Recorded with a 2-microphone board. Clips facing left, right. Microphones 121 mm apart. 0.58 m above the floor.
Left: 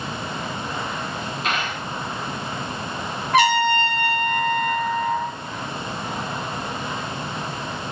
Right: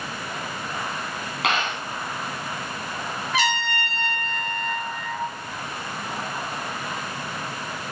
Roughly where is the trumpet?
Left.